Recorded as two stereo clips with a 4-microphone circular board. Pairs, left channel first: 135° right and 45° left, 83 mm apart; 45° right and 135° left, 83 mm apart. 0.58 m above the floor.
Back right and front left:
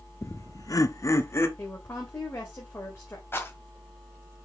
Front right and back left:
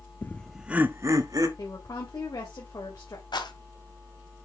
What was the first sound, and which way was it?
Laughter, 100° right.